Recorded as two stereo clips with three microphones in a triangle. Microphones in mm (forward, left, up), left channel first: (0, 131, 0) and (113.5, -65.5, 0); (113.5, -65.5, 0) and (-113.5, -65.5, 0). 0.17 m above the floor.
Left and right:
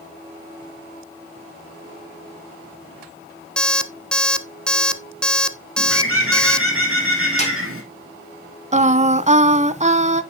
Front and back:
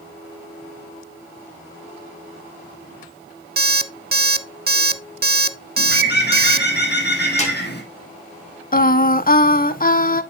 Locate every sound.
3.6 s an alarm clock: 155° right, 0.7 m
5.8 s a bird: 45° right, 2.5 m
7.4 s a snare drum: 60° left, 5 m
8.7 s singing: 20° right, 0.5 m